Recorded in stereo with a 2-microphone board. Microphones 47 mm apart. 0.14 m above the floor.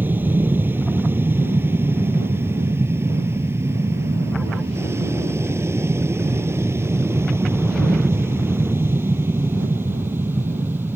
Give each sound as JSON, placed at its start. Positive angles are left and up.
{"t": 0.0, "sound": "an aircraft", "side_deg": -45}